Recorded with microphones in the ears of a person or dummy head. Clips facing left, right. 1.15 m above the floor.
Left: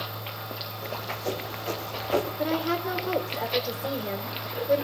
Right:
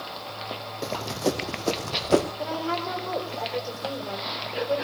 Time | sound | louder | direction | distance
0.8 | running footsteps | right 6 dB | 60° right (ahead or behind) | 2.5 m
2.4 | a woman speaking | left 2 dB | 30° left (ahead or behind) | 3.5 m